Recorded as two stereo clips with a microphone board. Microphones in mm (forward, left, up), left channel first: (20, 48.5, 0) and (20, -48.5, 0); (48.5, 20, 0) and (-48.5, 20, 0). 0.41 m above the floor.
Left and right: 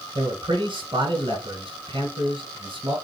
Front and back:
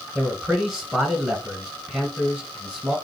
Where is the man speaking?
100° right, 1.7 m.